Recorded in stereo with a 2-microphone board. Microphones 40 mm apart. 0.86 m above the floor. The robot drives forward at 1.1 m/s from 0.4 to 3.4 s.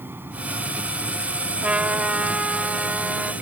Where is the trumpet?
30° right (ahead or behind); by 3.3 s 15° right (ahead or behind).